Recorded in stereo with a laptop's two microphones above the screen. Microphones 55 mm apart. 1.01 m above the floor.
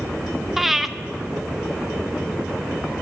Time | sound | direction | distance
0.6 | breathing | centre (ahead or behind) | 0.5 m